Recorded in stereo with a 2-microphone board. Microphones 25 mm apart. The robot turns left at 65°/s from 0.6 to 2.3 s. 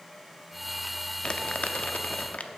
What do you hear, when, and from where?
1.2 s crumpling: 30° left (ahead or behind), 0.5 m; by 2.5 s 60° left (ahead or behind), 0.5 m